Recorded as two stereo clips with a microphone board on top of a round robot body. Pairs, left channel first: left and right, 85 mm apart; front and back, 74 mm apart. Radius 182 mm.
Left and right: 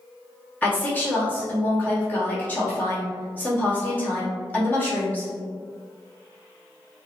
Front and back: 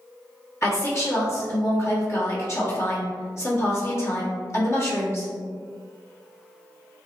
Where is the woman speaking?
30° left, 1.6 m.